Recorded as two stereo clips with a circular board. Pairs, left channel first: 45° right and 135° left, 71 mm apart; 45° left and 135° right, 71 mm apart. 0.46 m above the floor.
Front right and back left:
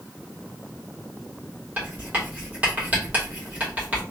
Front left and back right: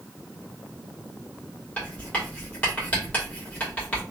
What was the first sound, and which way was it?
Writing, 90° left.